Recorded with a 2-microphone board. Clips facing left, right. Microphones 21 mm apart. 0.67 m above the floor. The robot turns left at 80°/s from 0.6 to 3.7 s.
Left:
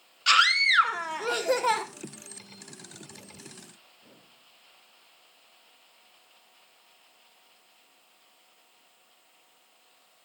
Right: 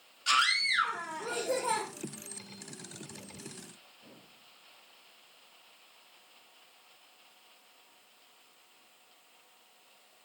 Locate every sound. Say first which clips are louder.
0.3 s a scream: left 6 dB; 135° left, 1.8 m; by 1.8 s 35° left, 1.8 m